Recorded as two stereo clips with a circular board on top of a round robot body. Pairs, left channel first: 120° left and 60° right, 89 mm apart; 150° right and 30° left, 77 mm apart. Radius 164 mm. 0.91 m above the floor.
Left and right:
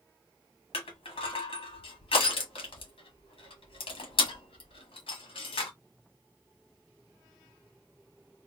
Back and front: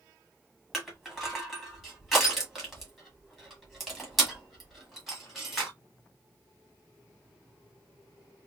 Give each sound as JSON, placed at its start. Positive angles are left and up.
{"t": 0.7, "sound": "crushing", "azimuth_deg": 120, "distance_m": 1.5}